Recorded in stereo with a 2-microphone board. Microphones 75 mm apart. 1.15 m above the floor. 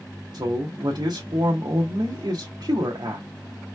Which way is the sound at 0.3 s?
65° right (ahead or behind).